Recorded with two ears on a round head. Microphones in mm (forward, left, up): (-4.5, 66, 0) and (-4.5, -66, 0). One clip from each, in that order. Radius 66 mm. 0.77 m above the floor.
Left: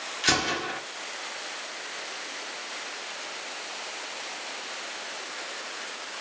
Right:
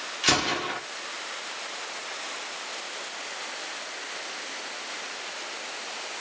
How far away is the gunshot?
About 1.0 m.